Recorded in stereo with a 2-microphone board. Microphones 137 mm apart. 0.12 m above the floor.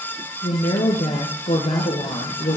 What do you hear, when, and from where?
0.4 s a woman speaking: 65° left (ahead or behind), 2.5 m